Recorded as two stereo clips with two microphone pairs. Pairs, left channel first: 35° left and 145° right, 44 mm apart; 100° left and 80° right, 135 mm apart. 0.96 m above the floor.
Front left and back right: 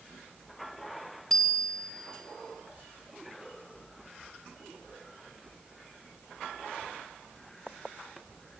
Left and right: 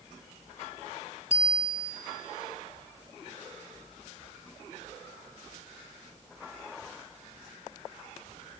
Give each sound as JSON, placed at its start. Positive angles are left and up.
{"t": 1.3, "sound": "a bicycle bell", "azimuth_deg": 120, "distance_m": 3.0}